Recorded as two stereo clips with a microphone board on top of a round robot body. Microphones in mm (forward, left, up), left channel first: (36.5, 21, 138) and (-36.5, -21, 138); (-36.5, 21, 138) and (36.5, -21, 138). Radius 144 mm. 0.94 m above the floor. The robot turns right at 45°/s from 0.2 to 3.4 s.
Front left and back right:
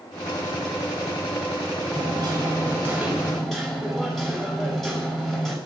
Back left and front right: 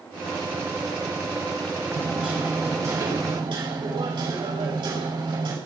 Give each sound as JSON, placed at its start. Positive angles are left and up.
{"t": 1.9, "sound": "hammering", "azimuth_deg": -125, "distance_m": 5.0}